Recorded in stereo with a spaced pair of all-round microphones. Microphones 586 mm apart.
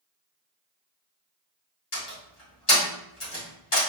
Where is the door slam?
55° left (ahead or behind), 2.0 m.